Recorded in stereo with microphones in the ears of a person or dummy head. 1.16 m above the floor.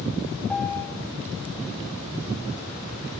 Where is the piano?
10° left (ahead or behind), 4.5 m.